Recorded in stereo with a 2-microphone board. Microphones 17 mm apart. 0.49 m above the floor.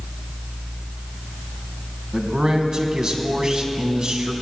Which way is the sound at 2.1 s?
50° right (ahead or behind).